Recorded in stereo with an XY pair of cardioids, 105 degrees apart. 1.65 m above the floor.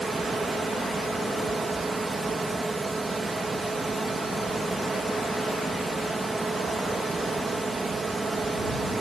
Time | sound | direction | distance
0.0 | a fan | 20° right | ?